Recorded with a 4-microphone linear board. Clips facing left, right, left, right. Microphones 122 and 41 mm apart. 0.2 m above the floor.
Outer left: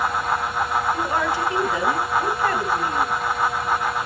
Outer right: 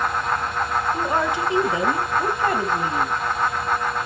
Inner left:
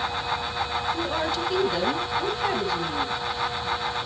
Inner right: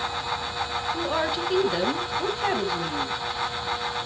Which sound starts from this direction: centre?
A woman speaking, at 0.9 s.